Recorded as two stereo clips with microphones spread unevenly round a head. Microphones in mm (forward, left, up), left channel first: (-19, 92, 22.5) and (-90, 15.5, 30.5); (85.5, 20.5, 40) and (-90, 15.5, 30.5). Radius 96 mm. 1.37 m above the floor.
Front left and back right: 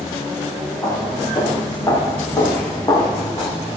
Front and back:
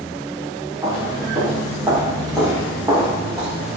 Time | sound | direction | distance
0.8 | footsteps | 110° left | 5.5 m